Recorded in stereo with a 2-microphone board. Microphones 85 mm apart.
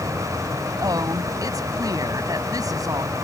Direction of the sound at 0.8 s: 45° right (ahead or behind).